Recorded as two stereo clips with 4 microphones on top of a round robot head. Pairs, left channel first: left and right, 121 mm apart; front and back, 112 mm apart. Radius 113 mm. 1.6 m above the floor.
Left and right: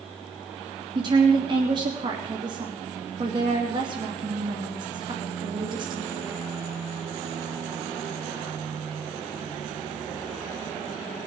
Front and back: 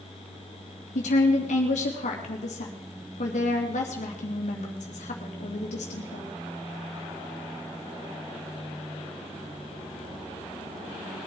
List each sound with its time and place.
0.9 s a woman speaking: 30° right, 3 m